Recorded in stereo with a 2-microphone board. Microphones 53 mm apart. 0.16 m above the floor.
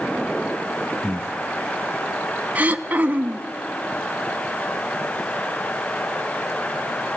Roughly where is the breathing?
Centre.